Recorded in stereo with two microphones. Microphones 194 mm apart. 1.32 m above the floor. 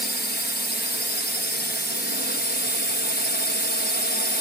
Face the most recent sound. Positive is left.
turn(degrees=60)  # may be behind; listen again after turning